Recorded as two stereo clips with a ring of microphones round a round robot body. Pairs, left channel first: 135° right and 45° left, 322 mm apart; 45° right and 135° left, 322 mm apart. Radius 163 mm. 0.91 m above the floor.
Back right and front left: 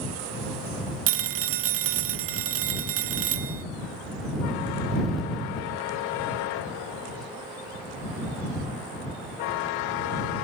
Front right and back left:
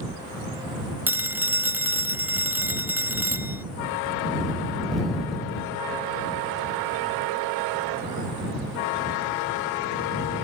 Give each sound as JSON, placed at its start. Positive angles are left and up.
{"t": 1.1, "sound": "a phone ringing", "azimuth_deg": 50}